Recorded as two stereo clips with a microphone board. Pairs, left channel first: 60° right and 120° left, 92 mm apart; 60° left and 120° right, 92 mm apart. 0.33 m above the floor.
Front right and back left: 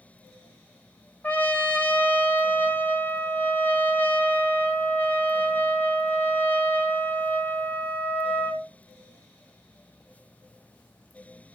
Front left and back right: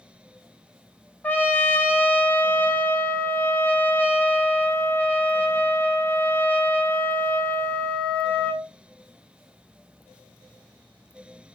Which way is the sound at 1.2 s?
5° right.